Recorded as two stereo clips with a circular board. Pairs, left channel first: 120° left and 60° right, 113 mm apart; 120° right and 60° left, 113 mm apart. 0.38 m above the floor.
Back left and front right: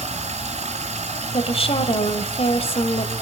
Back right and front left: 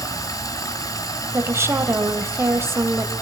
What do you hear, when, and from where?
0.0 s running water: 60° right, 3.5 m
1.3 s a woman speaking: 120° left, 2 m